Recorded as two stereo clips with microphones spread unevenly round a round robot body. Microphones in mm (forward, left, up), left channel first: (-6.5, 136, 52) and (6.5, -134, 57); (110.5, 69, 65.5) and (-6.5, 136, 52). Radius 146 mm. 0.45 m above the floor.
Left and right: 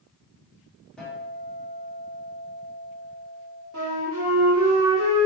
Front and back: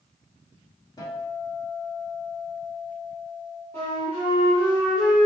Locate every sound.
1.0 s a guitar: 10° left, 1.3 m
3.7 s a flute: 105° right, 1.3 m